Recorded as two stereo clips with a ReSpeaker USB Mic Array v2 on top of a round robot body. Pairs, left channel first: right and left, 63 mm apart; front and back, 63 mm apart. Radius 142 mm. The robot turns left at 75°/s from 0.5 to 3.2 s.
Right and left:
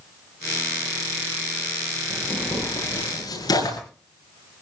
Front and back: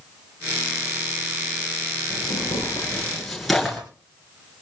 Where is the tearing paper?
5° right, 9.5 m; by 3.8 s 90° right, 9.5 m.